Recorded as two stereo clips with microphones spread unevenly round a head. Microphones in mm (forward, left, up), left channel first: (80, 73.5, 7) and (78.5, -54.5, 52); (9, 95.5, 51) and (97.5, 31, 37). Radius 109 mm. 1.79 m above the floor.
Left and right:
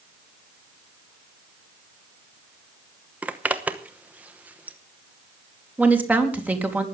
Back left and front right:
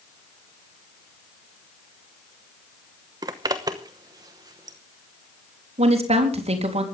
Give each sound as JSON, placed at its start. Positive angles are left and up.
{"t": 3.2, "sound": "a zipper", "azimuth_deg": -95, "distance_m": 0.9}
{"t": 5.8, "sound": "a woman speaking", "azimuth_deg": -15, "distance_m": 4.0}